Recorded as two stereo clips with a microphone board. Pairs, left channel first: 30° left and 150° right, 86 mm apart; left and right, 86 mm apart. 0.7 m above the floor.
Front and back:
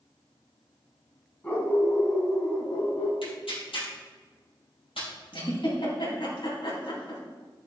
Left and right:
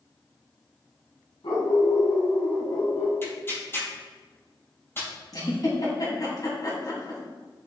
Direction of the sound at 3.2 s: 30° left.